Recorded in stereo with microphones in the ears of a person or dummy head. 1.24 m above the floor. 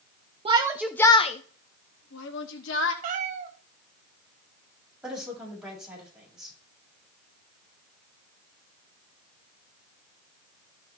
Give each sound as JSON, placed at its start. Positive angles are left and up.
{"t": 0.5, "sound": "a shout", "side_deg": -30, "distance_m": 0.9}
{"t": 3.0, "sound": "a cat meowing", "side_deg": -45, "distance_m": 1.9}
{"t": 5.0, "sound": "a woman speaking", "side_deg": -5, "distance_m": 6.5}